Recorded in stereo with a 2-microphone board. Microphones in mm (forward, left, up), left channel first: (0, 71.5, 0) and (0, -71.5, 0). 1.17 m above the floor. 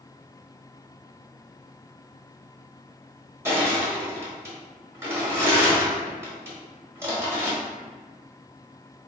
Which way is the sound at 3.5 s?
20° right (ahead or behind).